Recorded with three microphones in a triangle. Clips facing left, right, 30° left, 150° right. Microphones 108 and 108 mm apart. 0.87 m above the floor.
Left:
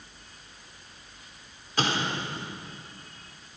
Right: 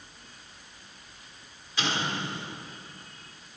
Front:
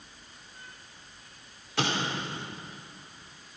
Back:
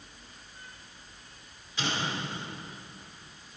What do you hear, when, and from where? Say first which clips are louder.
1.8 s an explosion: left 2 dB, front 3 dB; 45° left, 2.5 m